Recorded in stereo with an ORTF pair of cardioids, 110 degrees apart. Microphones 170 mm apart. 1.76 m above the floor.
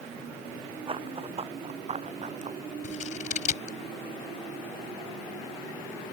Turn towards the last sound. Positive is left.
turn(degrees=45)